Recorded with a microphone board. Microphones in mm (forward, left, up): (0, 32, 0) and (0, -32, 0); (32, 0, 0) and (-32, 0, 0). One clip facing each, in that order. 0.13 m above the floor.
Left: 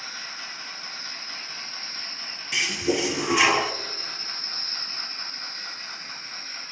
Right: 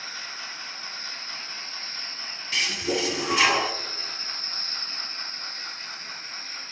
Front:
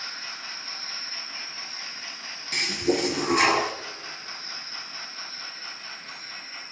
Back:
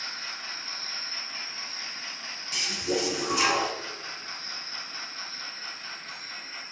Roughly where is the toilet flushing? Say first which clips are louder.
Left 2 dB, front 5 dB; ahead.